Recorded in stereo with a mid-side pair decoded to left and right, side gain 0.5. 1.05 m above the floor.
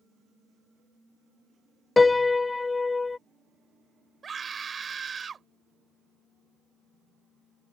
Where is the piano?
15° left.